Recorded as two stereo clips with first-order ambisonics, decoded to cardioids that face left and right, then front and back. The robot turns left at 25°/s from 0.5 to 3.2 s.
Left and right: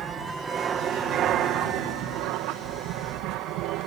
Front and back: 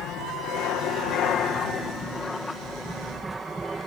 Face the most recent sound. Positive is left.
turn(degrees=-100)